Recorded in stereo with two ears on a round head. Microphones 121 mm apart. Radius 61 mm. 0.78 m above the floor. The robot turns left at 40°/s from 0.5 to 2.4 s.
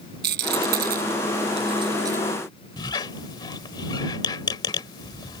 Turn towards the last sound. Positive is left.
turn(degrees=30)  # may be behind; listen again after turning